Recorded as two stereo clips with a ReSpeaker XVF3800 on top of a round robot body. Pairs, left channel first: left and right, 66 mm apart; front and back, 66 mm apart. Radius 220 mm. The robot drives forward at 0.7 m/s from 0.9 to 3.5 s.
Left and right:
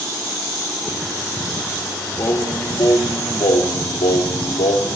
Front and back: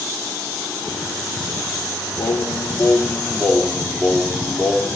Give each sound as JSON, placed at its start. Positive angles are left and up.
{"t": 2.2, "sound": "singing", "azimuth_deg": 45, "distance_m": 1.2}